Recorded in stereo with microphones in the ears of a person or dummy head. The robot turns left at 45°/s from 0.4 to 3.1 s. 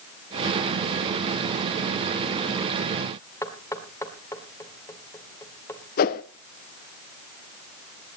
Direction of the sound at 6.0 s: 45° left (ahead or behind).